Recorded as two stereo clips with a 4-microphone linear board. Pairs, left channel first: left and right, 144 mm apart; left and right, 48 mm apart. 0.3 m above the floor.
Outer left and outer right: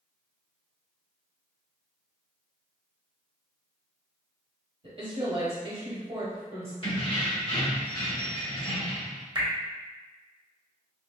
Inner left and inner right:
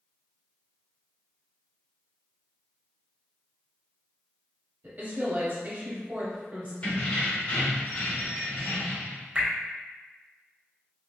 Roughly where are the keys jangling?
Left.